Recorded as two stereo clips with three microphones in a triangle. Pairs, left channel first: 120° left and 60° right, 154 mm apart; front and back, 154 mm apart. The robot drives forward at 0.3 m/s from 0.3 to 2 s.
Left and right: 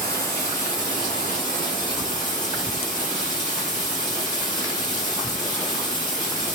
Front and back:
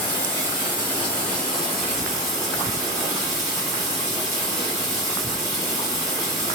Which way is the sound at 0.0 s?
160° left.